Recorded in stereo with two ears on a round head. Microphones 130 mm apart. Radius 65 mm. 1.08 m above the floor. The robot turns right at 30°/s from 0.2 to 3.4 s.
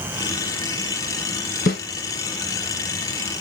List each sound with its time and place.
1.7 s a snare drum: 70° left (ahead or behind), 2.5 m